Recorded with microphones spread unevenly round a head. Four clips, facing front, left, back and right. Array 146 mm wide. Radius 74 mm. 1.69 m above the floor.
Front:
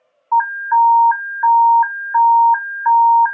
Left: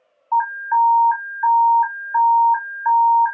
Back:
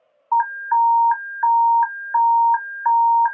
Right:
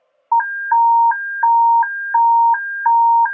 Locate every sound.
0.3 s an alarm: 80° right, 0.9 m